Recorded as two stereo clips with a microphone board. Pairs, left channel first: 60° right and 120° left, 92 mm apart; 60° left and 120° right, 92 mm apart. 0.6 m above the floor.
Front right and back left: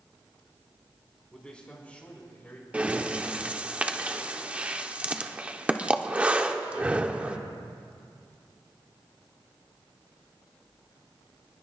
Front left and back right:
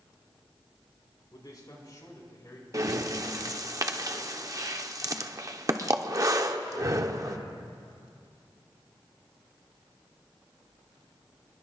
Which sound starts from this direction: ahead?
A man speaking, at 1.3 s.